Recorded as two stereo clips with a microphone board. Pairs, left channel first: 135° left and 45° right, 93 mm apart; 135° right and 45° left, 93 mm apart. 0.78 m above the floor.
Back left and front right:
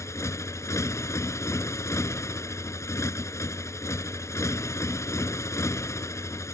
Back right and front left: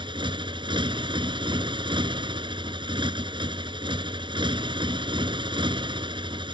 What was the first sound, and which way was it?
A motorcycle, 75° left.